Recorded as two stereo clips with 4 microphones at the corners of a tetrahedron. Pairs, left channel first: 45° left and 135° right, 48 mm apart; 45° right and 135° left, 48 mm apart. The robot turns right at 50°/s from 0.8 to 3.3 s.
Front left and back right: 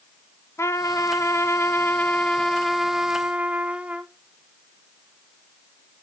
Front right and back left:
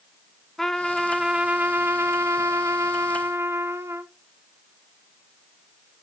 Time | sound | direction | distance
0.6 | a trumpet | 40° left | 0.7 m